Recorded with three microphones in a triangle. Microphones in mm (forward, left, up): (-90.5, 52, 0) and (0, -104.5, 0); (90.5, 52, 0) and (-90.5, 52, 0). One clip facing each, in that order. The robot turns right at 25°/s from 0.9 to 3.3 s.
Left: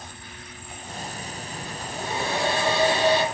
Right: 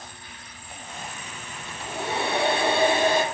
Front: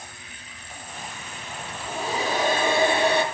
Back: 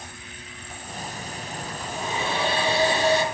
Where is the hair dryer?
60° right, 4 m; by 3.2 s 20° right, 4 m.